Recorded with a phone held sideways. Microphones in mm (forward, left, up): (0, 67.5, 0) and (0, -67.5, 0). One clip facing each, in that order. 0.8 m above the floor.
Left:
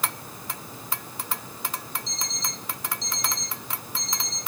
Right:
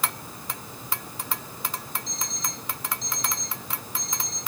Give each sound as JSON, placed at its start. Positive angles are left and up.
{"t": 2.1, "sound": "an alarm clock", "side_deg": -55, "distance_m": 4.5}